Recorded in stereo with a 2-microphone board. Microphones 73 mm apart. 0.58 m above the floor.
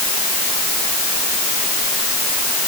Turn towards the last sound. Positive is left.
No sound to turn to.